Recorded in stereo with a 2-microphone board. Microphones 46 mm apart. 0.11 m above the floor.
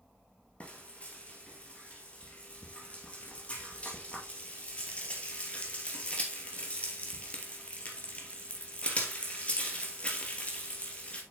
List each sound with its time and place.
0.6 s frying: 30° left (ahead or behind), 2.5 m